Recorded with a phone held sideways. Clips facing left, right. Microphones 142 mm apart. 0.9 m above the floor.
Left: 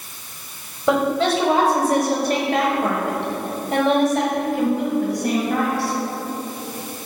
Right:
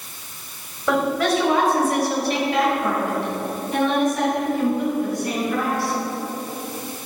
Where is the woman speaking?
20° left (ahead or behind), 4 m; by 5.9 s 75° left (ahead or behind), 5.5 m.